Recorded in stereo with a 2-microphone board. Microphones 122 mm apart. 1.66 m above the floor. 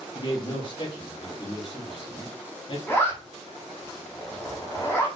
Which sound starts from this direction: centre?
A zipper, at 2.9 s.